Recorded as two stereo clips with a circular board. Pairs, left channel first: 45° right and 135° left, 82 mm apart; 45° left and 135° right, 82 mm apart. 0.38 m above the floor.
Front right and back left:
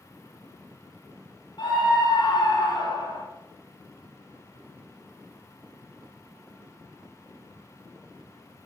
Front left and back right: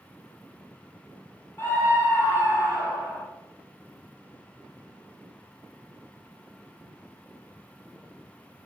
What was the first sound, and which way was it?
A scream, 15° right.